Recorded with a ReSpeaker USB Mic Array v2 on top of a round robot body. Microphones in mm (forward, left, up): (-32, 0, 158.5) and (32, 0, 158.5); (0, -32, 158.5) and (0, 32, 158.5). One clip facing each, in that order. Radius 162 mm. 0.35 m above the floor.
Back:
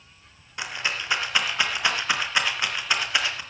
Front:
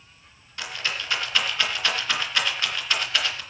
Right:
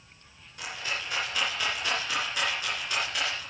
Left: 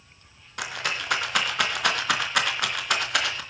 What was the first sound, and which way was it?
A rattle, 110° left.